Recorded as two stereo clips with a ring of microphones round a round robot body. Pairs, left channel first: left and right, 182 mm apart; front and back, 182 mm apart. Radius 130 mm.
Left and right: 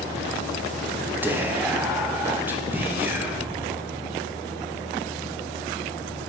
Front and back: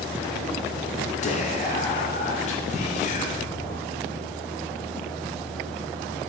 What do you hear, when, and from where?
1.2 s whispering: 15° right, 0.5 m